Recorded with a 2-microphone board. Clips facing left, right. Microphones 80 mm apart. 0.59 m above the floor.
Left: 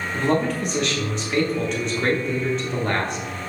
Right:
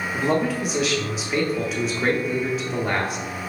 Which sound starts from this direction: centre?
A man speaking, at 0.1 s.